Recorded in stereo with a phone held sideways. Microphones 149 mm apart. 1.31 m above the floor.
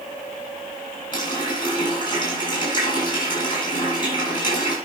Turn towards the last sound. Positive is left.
turn(degrees=30)  # may be behind; listen again after turning